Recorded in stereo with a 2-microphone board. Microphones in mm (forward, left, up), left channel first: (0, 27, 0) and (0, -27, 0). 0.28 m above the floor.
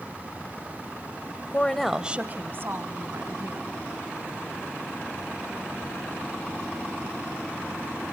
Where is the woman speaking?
30° left (ahead or behind), 1.0 m; by 3.7 s 65° right (ahead or behind), 3 m.